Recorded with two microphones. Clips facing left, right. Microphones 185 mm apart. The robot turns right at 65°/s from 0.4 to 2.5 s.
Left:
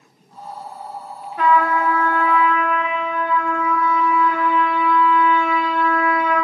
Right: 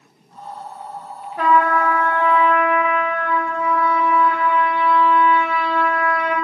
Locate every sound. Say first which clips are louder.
1.4 s a trumpet: even; 145° right, 1.1 m; by 6.4 s 70° right, 1.1 m